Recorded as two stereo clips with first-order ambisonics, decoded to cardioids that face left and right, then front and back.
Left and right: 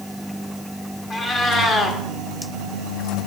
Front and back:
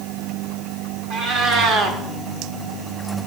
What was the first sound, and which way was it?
A cat meowing, 155° left.